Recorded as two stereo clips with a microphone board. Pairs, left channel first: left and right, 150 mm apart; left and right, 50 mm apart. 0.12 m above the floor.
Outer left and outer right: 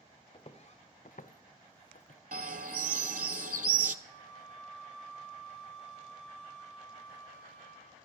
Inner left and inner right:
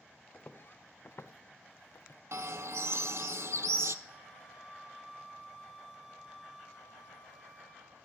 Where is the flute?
5° left (ahead or behind), 2.5 m.